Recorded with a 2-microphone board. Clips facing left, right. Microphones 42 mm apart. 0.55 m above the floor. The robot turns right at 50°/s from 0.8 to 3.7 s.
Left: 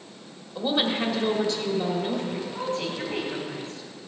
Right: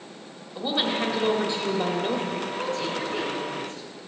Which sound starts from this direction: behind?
A woman speaking, at 0.6 s.